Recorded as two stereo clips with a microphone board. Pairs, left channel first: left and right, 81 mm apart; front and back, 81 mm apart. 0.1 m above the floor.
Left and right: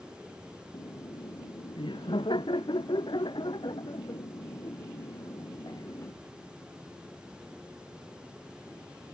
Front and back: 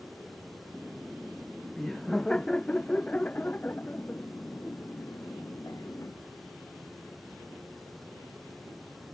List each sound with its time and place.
0.7 s laughter: 90° left; by 6.2 s 50° left